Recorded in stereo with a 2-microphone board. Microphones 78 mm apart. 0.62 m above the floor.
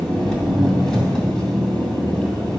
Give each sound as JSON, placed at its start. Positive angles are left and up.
{"t": 0.0, "sound": "an engine running", "side_deg": 10, "distance_m": 3.0}